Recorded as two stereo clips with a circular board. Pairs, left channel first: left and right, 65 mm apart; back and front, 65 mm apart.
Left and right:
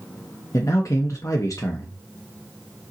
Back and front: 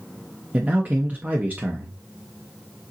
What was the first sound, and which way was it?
A man speaking, 65° left.